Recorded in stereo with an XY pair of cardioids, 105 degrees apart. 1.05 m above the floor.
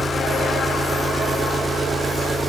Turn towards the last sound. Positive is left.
turn(degrees=-15)